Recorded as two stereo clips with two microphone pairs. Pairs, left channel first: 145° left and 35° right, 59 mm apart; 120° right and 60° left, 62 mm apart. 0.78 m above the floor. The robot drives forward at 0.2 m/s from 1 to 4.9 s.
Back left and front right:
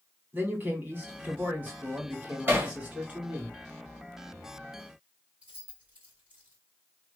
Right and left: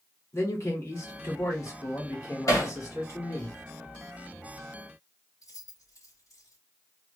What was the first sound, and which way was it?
A man speaking, 85° right.